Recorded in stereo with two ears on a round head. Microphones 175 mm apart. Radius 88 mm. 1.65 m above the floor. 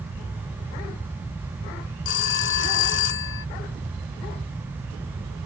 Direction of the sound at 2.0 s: 65° left (ahead or behind).